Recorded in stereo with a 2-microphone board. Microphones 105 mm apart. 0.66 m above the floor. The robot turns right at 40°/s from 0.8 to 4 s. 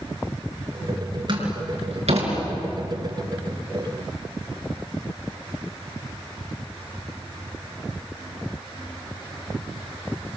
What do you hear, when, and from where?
1.3 s a door slam: 45° right (ahead or behind), 5.5 m; by 2.3 s 85° right, 5.5 m